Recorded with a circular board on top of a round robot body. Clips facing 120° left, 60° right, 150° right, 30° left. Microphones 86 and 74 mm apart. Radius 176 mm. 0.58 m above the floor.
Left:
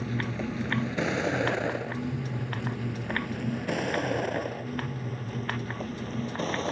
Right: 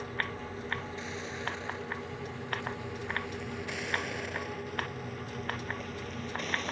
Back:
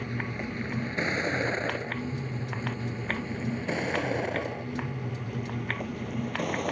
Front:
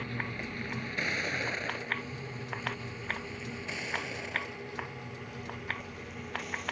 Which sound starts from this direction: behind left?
A vehicle, at 0.0 s.